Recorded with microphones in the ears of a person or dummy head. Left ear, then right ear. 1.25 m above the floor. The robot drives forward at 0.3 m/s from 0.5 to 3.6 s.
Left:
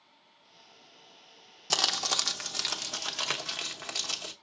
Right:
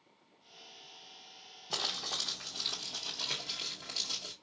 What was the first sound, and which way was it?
Crumpling, 75° left (ahead or behind).